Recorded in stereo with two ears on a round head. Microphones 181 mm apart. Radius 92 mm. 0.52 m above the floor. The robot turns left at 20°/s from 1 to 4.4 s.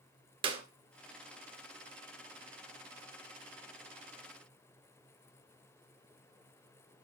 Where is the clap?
25° right (ahead or behind), 2.0 m.